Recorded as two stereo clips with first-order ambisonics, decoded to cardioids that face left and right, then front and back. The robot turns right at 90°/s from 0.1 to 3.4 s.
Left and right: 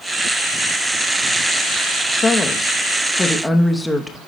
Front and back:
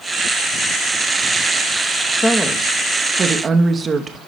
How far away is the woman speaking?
About 0.8 m.